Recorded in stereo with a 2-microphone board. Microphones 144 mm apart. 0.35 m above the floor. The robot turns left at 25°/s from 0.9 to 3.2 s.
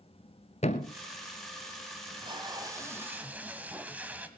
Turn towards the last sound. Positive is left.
turn(degrees=-10)  # may be behind; listen again after turning